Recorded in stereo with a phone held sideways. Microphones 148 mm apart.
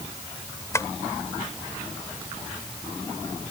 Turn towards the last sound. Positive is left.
turn(degrees=20)  # may be behind; listen again after turning